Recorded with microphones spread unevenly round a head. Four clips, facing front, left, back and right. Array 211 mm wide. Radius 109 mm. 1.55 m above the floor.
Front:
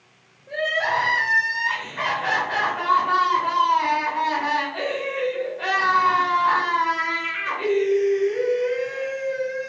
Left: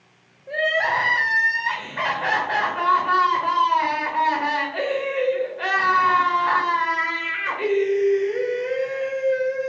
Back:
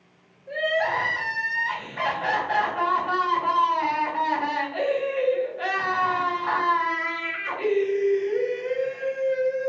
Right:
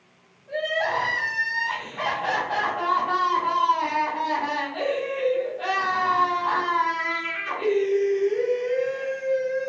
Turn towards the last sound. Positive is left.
turn(degrees=105)